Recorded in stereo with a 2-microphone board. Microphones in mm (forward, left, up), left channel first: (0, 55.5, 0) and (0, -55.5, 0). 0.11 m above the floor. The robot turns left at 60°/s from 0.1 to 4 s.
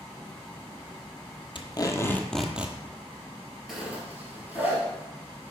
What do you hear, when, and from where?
1.6 s tape being pulled: 55° left, 0.9 m; by 2.8 s 20° right, 0.9 m
3.7 s a zipper: centre (ahead or behind), 2.5 m; by 4.8 s 15° right (ahead or behind), 2.5 m